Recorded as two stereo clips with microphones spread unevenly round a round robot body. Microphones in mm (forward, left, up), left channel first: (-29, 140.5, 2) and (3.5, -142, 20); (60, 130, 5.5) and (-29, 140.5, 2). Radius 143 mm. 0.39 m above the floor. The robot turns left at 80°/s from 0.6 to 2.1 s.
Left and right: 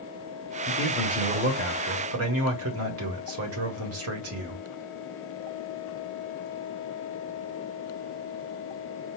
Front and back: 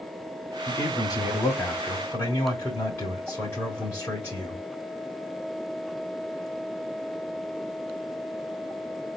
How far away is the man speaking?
About 1.6 m.